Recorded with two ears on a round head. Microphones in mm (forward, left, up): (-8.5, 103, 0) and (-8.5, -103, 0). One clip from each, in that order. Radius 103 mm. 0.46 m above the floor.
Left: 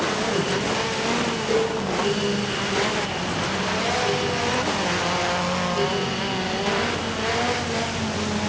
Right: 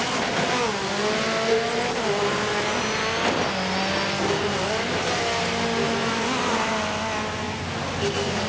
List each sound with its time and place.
1.5 s a cowbell: 70° right (ahead or behind), 4 m